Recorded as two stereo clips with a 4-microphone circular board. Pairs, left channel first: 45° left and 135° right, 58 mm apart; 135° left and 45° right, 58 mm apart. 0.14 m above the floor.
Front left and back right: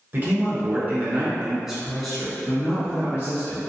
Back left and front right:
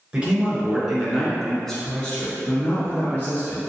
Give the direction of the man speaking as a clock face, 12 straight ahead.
4 o'clock.